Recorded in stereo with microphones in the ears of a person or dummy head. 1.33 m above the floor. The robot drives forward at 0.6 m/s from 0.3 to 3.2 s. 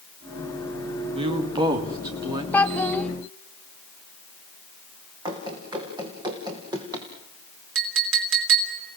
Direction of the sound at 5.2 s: 25° right (ahead or behind).